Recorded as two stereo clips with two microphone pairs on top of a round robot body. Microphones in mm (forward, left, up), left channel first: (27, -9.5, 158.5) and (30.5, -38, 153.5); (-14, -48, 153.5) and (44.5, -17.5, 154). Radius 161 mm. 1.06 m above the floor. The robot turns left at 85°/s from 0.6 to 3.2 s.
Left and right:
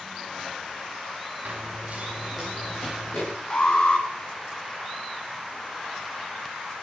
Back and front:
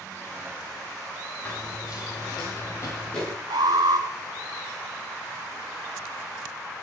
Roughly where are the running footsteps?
Right.